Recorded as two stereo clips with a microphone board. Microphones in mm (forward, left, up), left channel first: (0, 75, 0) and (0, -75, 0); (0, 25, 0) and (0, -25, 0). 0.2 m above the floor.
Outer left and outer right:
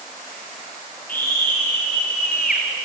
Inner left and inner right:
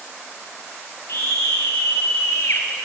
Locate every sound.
1.1 s a scream: 70° left (ahead or behind), 3.5 m